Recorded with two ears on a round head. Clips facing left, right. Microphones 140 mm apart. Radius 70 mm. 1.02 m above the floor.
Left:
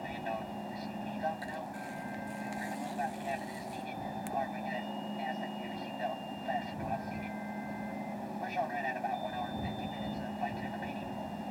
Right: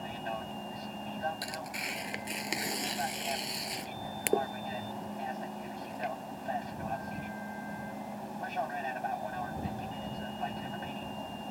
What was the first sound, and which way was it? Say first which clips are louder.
An aircraft: even; 10° left (ahead or behind).